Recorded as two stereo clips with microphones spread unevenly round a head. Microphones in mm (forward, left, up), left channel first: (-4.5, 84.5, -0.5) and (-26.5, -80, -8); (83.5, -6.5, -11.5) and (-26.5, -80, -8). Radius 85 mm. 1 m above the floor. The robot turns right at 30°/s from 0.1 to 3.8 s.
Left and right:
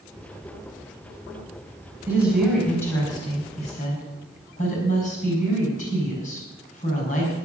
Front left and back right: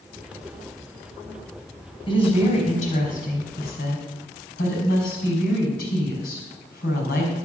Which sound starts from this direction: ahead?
A woman speaking, at 2.1 s.